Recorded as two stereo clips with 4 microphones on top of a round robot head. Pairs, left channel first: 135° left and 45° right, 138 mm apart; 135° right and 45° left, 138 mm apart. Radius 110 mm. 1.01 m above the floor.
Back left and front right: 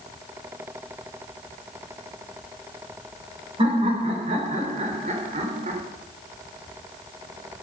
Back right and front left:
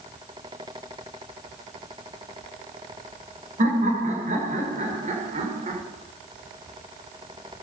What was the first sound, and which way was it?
Laughter, 5° left.